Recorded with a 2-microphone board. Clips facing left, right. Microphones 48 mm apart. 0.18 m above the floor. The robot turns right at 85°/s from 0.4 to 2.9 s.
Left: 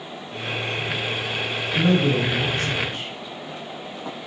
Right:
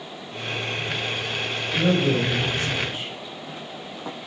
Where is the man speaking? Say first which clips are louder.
Left 1 dB; 110° left, 1.5 m; by 3.1 s 150° right, 1.5 m.